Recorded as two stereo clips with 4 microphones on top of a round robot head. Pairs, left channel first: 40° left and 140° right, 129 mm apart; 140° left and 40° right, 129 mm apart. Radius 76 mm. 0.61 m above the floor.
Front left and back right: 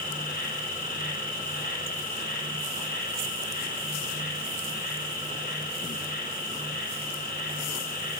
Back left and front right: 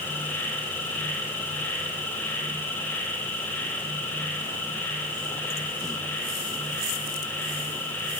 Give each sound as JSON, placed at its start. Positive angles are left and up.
{"t": 0.0, "sound": "an insect", "azimuth_deg": 60, "distance_m": 4.5}